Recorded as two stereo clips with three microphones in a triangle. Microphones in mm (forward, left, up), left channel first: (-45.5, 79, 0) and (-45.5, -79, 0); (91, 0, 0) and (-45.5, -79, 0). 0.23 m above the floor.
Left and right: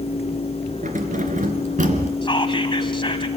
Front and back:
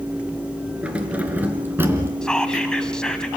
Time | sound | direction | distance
0.8 | keys jangling | 70° right | 3 m
2.2 | whispering | 110° left | 1.9 m